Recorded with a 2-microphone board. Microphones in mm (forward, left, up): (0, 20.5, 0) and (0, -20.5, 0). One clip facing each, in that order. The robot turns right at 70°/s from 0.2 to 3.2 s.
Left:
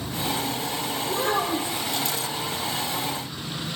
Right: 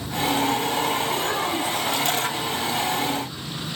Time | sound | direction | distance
1.0 | a child speaking | 110° left | 4 m